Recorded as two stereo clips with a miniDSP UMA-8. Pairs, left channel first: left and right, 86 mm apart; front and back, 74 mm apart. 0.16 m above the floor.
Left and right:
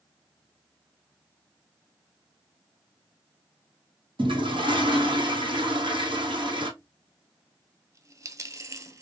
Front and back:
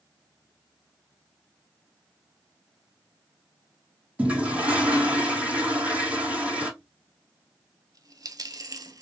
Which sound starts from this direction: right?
A toilet flushing, at 4.2 s.